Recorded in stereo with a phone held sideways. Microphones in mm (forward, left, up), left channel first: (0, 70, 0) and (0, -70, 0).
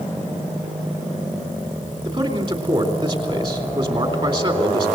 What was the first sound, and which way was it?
A man speaking, 40° right (ahead or behind).